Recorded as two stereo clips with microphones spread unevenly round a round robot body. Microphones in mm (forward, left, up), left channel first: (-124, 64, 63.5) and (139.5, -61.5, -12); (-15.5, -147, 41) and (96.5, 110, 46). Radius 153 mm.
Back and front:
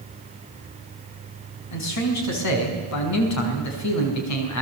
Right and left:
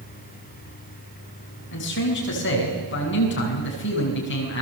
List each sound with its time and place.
1.7 s a man speaking: 165° right, 5.5 m